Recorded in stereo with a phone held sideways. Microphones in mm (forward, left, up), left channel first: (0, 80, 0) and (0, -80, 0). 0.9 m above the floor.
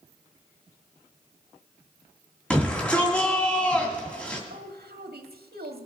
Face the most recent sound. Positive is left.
turn(degrees=-80)